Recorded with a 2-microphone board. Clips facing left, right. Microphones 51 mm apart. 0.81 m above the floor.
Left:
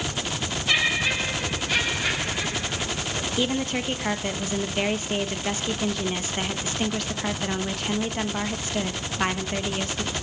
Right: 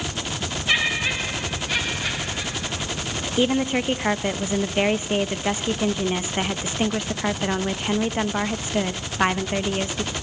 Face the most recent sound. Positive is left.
turn(degrees=-20)  # may be behind; listen again after turning